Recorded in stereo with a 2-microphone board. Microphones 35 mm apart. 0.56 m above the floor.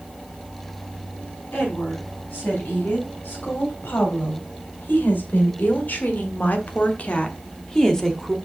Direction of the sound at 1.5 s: 65° left (ahead or behind).